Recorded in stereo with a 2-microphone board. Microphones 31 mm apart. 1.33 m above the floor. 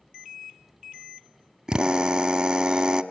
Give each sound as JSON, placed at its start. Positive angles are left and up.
{"t": 1.7, "sound": "a drill", "side_deg": -25, "distance_m": 0.9}